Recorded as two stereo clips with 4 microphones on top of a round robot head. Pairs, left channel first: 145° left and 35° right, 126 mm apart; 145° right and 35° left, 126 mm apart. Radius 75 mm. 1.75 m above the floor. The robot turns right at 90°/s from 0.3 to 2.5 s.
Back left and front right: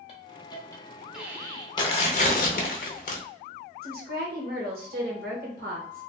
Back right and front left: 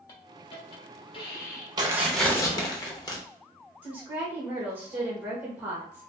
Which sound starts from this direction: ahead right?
A woman speaking, at 3.8 s.